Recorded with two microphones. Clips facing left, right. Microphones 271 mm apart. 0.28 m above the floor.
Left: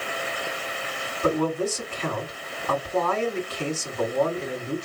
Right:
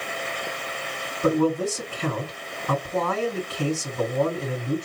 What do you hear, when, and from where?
1.2 s a man speaking: 50° right (ahead or behind), 2.5 m